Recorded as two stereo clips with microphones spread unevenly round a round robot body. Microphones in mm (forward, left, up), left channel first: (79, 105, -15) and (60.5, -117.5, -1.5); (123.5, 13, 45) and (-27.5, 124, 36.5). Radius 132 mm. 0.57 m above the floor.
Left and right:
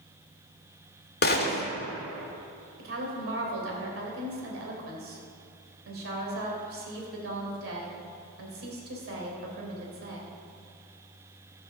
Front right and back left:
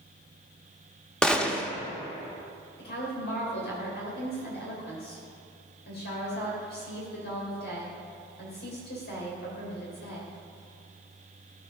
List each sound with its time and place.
1.2 s a gunshot: 50° left, 1.1 m
2.8 s a woman speaking: 75° right, 3 m